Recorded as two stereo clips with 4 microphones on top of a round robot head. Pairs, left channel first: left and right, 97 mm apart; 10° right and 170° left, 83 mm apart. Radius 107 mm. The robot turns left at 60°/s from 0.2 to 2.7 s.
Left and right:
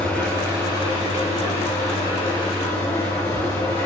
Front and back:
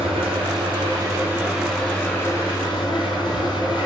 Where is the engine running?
170° left, 4.5 m; by 3.9 s 20° left, 4.5 m.